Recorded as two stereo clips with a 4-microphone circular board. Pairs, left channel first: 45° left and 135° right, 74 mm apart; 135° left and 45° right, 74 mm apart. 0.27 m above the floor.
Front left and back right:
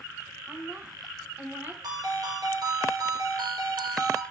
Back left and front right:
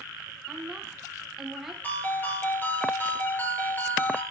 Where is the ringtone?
165° right, 2.5 m.